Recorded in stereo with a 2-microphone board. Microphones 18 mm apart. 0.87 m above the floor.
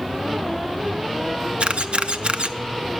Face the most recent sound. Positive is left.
turn(degrees=-85)